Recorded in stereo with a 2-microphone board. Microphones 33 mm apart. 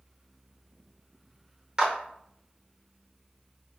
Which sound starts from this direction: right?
A clap, at 1.8 s.